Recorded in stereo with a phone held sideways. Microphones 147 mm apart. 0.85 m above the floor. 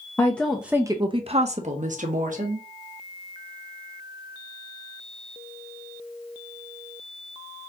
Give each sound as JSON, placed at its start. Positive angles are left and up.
{"t": 0.2, "sound": "a woman speaking", "side_deg": 15, "distance_m": 0.6}